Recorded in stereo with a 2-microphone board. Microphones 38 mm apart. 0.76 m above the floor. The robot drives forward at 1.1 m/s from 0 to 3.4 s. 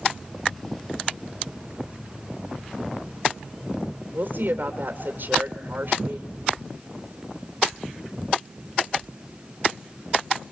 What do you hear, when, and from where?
4.1 s a woman speaking: 55° right (ahead or behind), 3 m